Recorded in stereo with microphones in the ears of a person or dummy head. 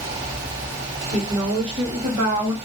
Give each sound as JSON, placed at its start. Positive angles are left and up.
{"t": 1.1, "sound": "a woman speaking", "side_deg": -30, "distance_m": 2.5}